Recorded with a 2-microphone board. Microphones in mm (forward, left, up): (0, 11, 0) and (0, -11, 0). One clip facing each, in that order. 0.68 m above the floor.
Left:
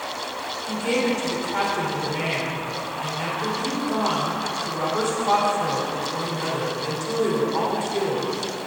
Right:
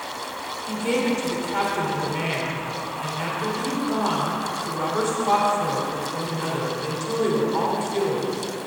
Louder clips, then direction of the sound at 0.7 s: Even; centre (ahead or behind).